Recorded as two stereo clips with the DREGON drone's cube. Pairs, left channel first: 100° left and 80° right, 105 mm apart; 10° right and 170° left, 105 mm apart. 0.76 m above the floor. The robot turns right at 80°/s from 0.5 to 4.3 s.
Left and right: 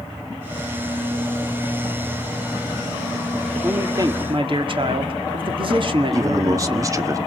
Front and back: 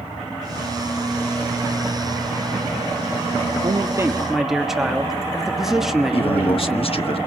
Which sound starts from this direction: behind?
A man speaking, at 3.6 s.